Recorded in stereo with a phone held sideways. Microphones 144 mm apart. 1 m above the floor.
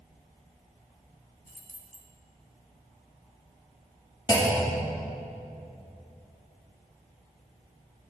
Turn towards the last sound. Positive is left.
turn(degrees=30)  # may be behind; listen again after turning